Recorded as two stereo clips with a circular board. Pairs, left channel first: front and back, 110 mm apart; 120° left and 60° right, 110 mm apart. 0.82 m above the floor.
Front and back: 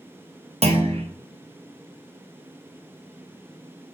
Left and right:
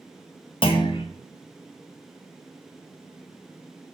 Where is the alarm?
No alarm in this recording.